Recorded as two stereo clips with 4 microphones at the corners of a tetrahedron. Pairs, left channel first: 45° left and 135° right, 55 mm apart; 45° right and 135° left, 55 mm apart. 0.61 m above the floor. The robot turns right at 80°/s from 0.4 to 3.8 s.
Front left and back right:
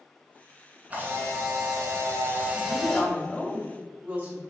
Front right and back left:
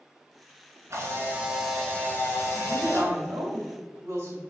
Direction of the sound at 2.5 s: 60° left.